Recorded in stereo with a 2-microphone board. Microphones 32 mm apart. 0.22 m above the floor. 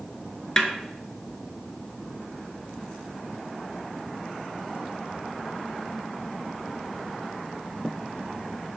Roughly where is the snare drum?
Left.